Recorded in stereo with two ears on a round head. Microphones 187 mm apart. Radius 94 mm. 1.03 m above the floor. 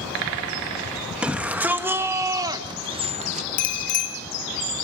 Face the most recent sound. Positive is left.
turn(degrees=60)  # may be behind; listen again after turning